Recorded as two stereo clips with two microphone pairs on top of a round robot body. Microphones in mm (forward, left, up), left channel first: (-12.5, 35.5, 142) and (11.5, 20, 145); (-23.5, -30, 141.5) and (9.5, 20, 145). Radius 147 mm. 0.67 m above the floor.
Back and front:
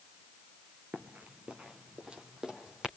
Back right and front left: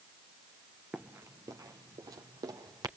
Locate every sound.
0.9 s running footsteps: 20° right, 0.8 m; by 2.9 s 35° left, 3 m